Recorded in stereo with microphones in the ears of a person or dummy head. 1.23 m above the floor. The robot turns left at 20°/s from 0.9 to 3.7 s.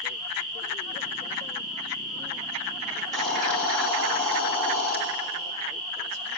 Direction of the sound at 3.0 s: 5° right (ahead or behind).